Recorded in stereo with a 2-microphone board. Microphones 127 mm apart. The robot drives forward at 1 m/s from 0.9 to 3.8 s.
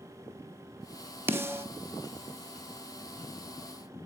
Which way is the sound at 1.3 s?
20° right (ahead or behind).